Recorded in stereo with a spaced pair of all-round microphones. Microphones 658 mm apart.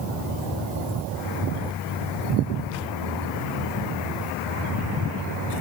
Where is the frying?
I don't hear frying.